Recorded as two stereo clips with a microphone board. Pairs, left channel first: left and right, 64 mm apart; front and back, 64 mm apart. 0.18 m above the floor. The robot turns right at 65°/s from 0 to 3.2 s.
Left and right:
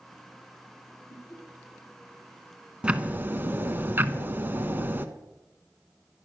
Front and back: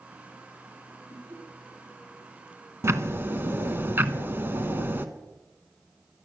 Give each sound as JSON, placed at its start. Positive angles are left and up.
{"t": 1.1, "sound": "laughter", "azimuth_deg": 105, "distance_m": 4.0}
{"t": 2.8, "sound": "ticking", "azimuth_deg": -160, "distance_m": 0.8}